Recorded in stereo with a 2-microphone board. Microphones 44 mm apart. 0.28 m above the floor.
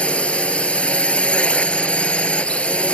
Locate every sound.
0.0 s a drone: 25° left (ahead or behind)